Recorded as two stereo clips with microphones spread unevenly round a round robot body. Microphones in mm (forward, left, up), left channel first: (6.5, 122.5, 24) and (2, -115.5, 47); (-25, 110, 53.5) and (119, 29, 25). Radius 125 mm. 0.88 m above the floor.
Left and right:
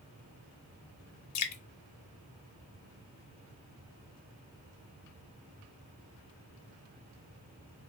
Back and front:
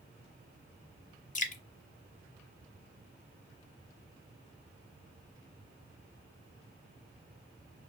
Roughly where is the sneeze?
No sneeze in this recording.